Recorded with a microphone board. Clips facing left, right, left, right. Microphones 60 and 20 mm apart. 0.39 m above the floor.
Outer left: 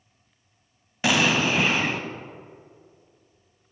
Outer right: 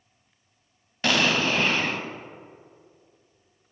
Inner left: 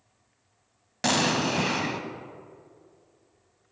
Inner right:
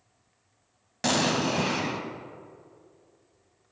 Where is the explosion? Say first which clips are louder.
Outer left 1 dB, inner left 1 dB; 10° left (ahead or behind), 0.5 m.